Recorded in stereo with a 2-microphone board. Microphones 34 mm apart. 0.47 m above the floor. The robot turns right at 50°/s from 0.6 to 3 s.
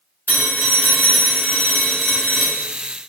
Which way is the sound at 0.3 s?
75° left.